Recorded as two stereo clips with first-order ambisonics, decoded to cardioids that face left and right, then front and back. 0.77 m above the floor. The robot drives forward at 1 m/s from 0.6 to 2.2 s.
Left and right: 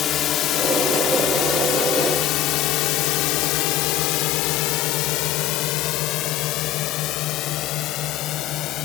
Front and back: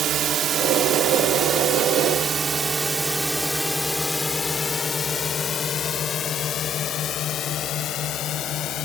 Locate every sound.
0.0 s a drone: 140° left; by 8.9 s 45° left